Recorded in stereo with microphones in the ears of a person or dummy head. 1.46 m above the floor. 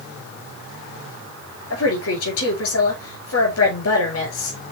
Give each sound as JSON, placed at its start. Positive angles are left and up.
{"t": 1.7, "sound": "a woman speaking", "side_deg": 80, "distance_m": 5.5}